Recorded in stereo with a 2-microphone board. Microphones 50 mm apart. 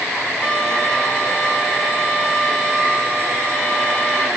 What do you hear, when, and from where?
0.4 s a violin: 10° left (ahead or behind), 8 m